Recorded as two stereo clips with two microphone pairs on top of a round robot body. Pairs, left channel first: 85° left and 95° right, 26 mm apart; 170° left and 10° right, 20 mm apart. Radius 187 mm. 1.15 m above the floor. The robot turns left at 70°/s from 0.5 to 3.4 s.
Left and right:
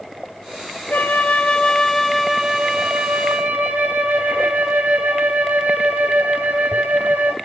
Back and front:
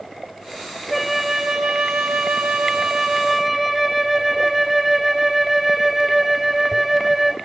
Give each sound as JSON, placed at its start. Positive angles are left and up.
{"t": 0.9, "sound": "a flute", "azimuth_deg": 85, "distance_m": 1.0}